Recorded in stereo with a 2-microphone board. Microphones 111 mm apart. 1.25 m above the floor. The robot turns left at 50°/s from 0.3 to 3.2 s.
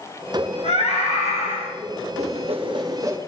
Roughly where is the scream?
Behind left.